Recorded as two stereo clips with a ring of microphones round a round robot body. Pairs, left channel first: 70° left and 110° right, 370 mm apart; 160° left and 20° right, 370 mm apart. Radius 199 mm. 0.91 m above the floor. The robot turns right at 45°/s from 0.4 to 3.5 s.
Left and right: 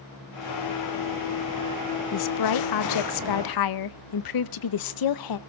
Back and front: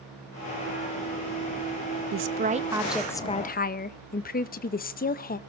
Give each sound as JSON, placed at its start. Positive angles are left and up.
{"t": 2.1, "sound": "a woman speaking", "azimuth_deg": 30, "distance_m": 0.8}